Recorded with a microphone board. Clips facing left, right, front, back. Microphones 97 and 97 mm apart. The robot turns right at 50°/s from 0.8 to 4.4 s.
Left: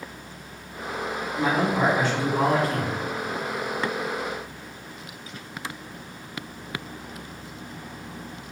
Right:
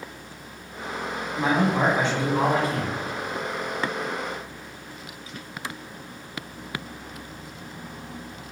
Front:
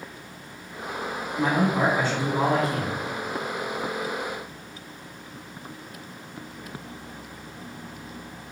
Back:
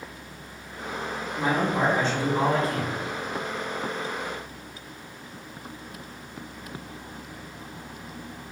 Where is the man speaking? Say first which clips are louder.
Right 1 dB, front 2 dB; 105° right, 1.2 m; by 3.0 s 25° right, 1.2 m.